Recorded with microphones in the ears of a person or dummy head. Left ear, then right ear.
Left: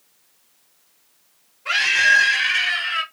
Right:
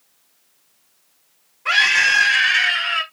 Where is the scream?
50° right (ahead or behind), 5.5 m; by 3.0 s 55° right (ahead or behind), 6 m.